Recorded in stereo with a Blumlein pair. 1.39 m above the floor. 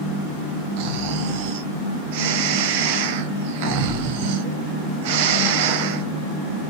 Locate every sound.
0.8 s snoring: 45° right, 0.7 m